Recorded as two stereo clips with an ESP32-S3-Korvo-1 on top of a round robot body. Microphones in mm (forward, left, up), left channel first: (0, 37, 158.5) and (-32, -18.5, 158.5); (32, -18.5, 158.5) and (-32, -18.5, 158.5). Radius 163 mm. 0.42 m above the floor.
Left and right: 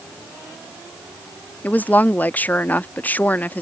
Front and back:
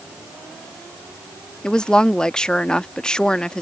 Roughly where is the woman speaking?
Ahead left.